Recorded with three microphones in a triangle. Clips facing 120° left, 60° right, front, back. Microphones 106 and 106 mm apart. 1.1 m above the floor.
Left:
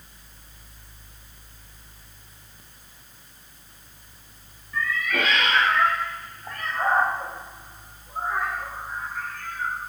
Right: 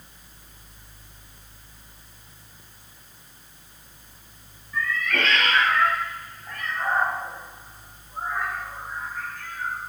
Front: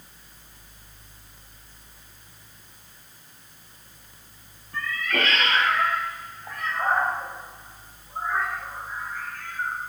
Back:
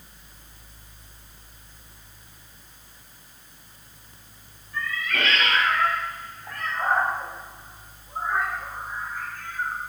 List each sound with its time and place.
4.7 s a cat meowing: 25° left, 2.5 m; by 9.8 s 115° left, 6 m